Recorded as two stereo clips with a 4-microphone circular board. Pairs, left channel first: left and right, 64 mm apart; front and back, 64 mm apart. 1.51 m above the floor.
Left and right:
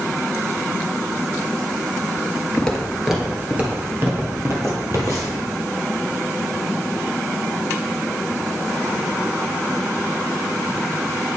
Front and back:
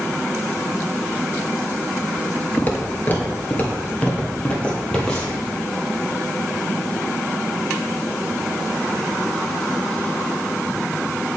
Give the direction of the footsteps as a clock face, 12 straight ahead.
11 o'clock.